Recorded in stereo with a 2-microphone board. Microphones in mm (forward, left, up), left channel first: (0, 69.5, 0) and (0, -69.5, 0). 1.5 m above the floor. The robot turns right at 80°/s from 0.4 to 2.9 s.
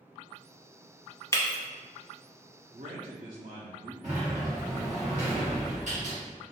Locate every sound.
1.3 s breaking glass: 20° left (ahead or behind), 0.9 m; by 1.6 s 25° left (ahead or behind), 0.9 m
2.7 s a man speaking: 70° right (ahead or behind), 0.8 m; by 3.9 s 75° right (ahead or behind), 0.8 m
4.0 s a sliding door: 60° right (ahead or behind), 1.7 m